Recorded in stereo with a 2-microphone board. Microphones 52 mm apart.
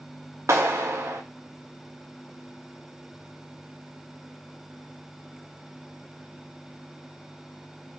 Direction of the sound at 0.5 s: 75° right (ahead or behind).